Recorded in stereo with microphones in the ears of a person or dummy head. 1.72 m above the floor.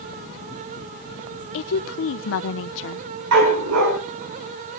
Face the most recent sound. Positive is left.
turn(degrees=-75)  # may be behind; listen again after turning